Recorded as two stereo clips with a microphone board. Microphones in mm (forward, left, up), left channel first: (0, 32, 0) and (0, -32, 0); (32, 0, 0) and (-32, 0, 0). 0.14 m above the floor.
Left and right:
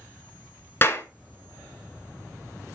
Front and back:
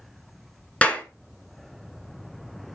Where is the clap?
60° left, 1.2 m.